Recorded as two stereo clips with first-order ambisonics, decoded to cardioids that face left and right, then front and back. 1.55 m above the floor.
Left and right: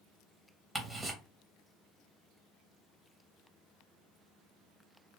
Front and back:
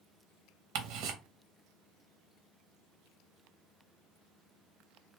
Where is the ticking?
175° right, 0.8 m.